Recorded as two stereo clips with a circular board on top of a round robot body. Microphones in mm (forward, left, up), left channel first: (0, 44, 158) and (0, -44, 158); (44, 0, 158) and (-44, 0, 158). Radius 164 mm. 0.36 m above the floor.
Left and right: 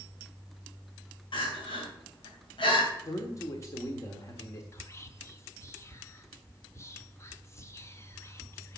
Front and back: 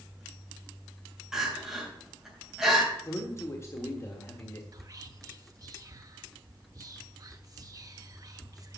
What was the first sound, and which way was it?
Crying, 100° left.